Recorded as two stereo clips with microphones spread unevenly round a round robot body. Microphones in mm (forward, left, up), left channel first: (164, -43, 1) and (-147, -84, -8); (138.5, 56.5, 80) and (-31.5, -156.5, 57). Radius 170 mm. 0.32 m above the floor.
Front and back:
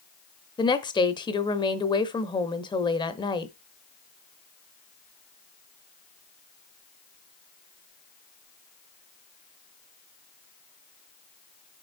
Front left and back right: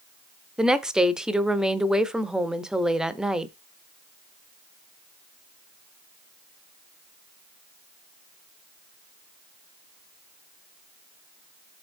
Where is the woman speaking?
55° right, 0.9 m.